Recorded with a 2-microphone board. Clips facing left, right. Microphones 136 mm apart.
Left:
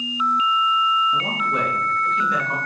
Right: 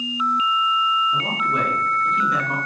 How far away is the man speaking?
About 2 m.